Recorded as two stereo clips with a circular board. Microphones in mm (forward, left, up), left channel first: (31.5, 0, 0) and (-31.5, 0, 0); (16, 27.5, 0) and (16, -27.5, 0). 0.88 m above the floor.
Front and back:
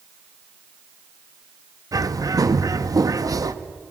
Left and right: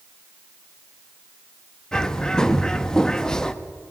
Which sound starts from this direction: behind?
A bird, at 1.9 s.